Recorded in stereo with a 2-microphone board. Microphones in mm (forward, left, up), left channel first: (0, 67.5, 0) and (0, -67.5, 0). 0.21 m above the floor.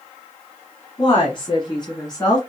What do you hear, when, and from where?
1.0 s a woman speaking: 40° left (ahead or behind), 1.8 m; by 2.4 s 30° left (ahead or behind), 2.5 m